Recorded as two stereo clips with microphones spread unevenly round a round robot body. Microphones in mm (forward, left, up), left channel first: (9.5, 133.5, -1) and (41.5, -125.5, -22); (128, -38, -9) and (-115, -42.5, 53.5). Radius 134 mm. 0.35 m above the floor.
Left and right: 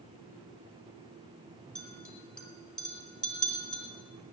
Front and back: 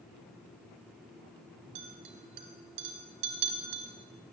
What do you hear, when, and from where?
1.8 s a clink: 175° right, 1.7 m